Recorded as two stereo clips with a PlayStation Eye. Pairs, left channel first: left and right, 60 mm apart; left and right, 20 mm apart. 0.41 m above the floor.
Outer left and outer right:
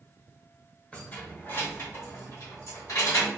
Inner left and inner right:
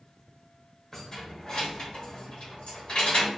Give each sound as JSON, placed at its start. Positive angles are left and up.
{"t": 0.9, "sound": "keys jangling", "side_deg": 25, "distance_m": 0.9}